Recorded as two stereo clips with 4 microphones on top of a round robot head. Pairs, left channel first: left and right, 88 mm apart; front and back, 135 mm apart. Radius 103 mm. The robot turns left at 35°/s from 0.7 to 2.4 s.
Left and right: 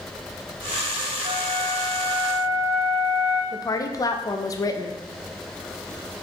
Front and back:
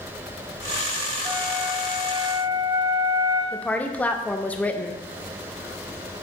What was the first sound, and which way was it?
A flute, 85° right.